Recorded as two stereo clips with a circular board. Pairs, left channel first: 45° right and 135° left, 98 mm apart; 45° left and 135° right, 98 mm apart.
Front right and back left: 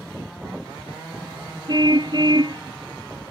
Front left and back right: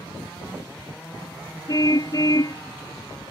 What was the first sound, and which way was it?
A car horn, 95° left.